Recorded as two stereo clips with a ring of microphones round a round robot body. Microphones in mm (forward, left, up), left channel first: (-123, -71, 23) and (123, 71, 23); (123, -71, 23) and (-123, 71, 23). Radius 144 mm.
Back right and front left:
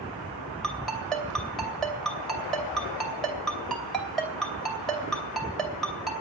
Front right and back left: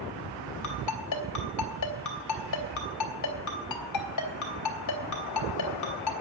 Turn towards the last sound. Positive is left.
turn(degrees=-60)